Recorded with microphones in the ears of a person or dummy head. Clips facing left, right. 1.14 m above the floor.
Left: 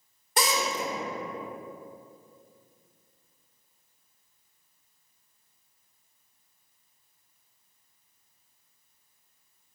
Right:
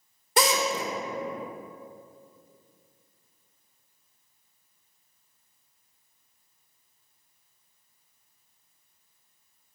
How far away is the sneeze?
No sneeze in this recording.